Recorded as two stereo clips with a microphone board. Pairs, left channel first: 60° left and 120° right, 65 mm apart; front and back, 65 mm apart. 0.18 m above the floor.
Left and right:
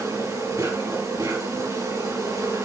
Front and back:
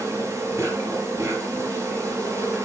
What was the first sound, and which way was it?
An insect, 135° right.